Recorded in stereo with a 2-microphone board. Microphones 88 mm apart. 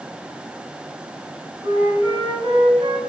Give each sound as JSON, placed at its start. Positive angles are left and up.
{"t": 1.6, "sound": "a flute", "side_deg": -65, "distance_m": 2.0}